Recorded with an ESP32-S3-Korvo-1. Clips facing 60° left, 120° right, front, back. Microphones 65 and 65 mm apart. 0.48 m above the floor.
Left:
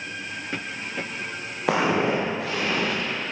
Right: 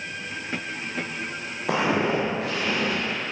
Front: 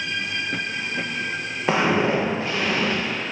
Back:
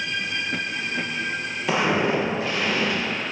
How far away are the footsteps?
About 6 m.